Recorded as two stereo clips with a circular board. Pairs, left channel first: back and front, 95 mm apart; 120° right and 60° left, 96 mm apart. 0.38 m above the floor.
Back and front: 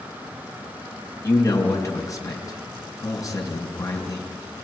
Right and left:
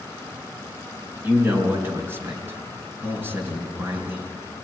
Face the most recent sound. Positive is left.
turn(degrees=125)